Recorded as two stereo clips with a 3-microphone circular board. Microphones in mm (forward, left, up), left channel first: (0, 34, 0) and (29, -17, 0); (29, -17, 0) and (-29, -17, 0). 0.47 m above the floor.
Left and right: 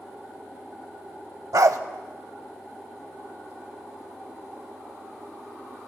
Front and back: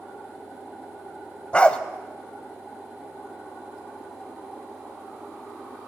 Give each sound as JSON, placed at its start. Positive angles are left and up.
{"t": 1.5, "sound": "a dog barking", "azimuth_deg": -70, "distance_m": 0.7}